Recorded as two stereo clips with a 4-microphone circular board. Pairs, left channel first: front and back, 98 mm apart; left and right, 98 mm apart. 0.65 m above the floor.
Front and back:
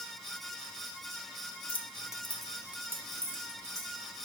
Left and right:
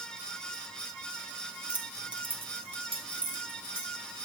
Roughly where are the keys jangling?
Ahead.